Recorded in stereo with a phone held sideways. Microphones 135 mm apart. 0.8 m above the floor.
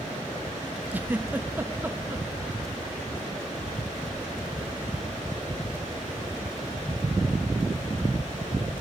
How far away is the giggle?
About 0.7 m.